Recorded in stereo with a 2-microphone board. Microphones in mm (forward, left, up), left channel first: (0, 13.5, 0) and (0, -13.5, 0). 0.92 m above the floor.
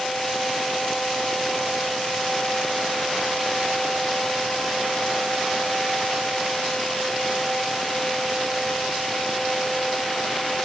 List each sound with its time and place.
Only background noise.